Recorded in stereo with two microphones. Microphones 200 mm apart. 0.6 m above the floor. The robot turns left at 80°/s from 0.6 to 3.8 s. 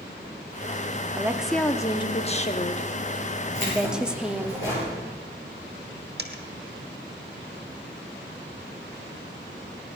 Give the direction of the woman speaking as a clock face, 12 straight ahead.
5 o'clock.